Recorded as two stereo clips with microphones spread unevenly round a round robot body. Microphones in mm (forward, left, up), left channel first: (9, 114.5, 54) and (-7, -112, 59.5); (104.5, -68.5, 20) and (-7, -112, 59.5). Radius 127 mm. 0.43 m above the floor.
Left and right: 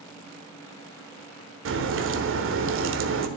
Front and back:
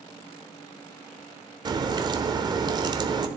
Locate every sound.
1.6 s a crack: 95° right, 1.2 m